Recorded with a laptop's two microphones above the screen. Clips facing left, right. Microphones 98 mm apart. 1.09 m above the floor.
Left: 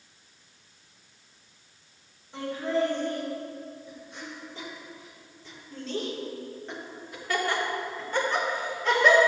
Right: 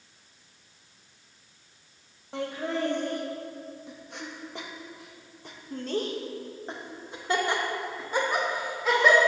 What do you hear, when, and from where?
2.3 s laughter: 65° right (ahead or behind), 2.5 m; by 9.2 s centre (ahead or behind), 2.5 m